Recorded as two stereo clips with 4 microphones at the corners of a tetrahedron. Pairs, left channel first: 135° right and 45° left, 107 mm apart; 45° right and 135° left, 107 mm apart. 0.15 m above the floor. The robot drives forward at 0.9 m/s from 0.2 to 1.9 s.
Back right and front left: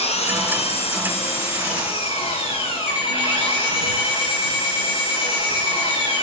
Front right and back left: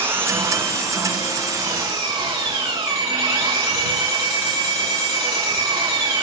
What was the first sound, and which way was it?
An engine running, 155° right.